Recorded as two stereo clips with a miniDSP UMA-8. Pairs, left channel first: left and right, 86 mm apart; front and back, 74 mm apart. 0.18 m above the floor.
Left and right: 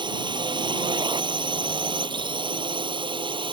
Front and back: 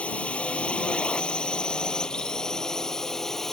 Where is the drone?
75° right; by 3.5 s 85° right.